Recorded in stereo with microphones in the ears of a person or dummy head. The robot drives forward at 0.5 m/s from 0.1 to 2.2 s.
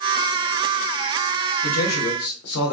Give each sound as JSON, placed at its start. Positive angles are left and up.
{"t": 1.6, "sound": "a man speaking", "side_deg": 50, "distance_m": 0.9}